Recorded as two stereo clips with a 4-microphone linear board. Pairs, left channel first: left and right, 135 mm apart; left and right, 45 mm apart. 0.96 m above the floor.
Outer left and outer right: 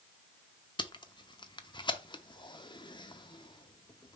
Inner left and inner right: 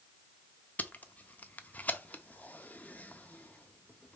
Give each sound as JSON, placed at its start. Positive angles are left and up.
{"t": 0.8, "sound": "tape being pulled", "side_deg": 35, "distance_m": 0.6}